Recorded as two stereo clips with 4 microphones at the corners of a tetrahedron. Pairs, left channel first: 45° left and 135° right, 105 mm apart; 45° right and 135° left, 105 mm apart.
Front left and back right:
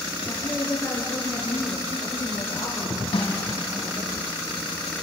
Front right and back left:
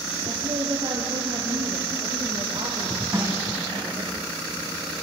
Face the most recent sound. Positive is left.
turn(degrees=70)